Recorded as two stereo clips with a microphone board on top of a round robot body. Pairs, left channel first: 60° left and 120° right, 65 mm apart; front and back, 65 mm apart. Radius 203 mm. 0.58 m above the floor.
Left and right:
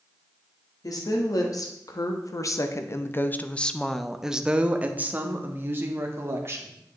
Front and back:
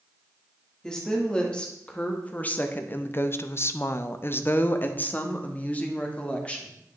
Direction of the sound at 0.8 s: 80° left.